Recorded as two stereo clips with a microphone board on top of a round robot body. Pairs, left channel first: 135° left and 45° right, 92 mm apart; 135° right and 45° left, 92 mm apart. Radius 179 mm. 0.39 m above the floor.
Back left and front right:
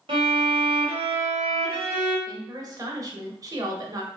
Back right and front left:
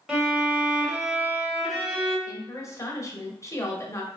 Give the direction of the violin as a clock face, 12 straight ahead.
1 o'clock.